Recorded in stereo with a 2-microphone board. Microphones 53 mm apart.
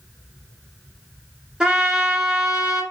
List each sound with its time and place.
1.6 s a trumpet: 10° right (ahead or behind), 1.0 m